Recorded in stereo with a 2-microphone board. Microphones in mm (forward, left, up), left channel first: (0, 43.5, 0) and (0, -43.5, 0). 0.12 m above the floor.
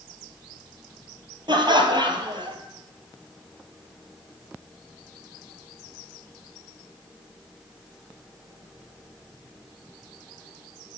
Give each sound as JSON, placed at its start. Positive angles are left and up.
{"t": 1.5, "sound": "laughter", "side_deg": -60, "distance_m": 2.5}